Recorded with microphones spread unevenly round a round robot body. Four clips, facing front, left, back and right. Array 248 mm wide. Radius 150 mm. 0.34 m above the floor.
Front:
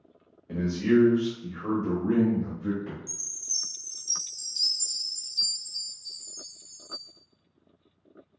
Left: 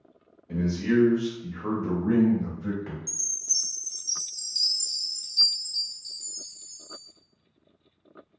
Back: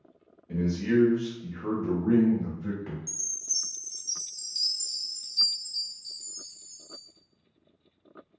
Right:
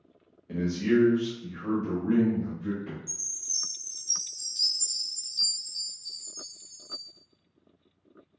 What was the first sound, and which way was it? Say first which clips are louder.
A man speaking: even, front 3 dB; 5° left.